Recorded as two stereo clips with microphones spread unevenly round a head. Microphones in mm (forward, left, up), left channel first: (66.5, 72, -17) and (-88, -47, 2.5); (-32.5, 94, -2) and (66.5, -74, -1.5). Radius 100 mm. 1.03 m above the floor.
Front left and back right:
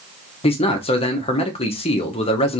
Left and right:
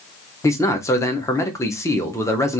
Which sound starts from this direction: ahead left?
A man speaking, at 0.4 s.